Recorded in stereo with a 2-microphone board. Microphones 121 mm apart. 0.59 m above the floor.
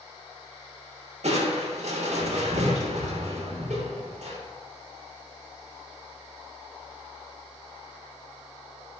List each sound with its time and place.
1.2 s crushing: 70° right (ahead or behind), 0.6 m